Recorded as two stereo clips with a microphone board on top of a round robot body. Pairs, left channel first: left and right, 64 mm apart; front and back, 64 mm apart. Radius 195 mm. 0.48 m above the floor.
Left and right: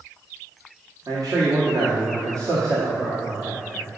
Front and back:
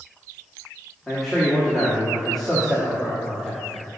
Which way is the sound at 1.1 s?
85° right.